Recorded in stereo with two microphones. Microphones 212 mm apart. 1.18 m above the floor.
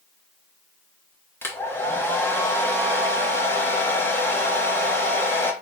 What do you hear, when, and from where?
1.4 s a hair dryer: 10° left (ahead or behind), 0.9 m